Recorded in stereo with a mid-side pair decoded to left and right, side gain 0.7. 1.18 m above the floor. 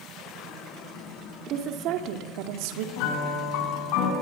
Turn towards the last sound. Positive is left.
turn(degrees=70)